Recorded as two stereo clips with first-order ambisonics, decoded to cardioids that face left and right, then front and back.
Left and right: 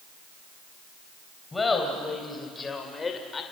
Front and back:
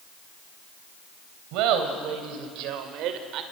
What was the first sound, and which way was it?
Laughter, 170° left.